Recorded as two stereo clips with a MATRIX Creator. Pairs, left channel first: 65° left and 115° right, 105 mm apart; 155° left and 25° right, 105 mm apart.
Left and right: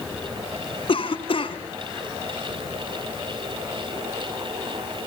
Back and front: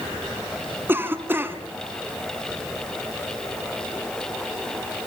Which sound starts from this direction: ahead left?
A cough, at 0.9 s.